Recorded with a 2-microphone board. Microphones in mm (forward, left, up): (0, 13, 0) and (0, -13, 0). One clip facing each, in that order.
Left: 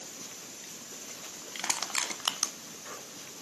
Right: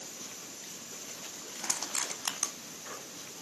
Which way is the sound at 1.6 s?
50° left (ahead or behind).